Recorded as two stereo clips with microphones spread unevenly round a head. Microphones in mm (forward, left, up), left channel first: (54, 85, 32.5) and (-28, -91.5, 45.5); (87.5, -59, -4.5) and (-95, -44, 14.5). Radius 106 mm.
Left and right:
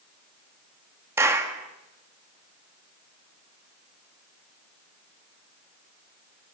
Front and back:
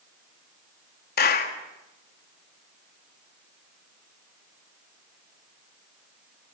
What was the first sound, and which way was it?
A clap, 35° right.